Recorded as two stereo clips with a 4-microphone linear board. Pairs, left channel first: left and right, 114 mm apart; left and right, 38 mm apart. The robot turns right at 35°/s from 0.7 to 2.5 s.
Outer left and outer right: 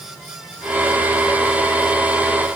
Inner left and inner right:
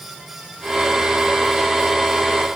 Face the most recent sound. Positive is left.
No sound to turn to.